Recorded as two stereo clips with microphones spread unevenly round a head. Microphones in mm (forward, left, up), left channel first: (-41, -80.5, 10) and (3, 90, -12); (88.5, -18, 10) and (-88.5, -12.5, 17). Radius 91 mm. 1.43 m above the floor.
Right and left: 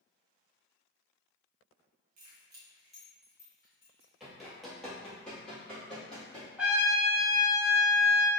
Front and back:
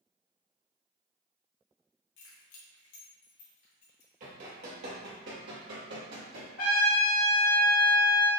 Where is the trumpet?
15° right, 1.2 m.